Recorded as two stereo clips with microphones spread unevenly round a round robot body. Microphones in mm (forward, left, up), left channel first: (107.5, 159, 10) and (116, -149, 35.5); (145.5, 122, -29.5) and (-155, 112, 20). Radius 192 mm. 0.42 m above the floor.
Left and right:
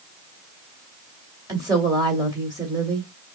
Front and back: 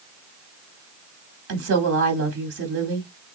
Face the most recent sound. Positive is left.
turn(degrees=-165)